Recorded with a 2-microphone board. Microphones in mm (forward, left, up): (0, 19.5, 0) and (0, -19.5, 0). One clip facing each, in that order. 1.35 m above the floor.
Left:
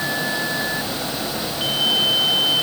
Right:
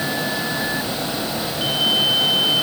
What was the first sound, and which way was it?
Only background noise.